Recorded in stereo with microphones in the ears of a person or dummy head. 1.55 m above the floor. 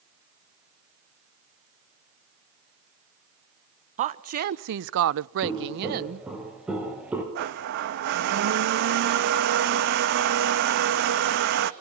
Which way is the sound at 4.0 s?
45° right (ahead or behind).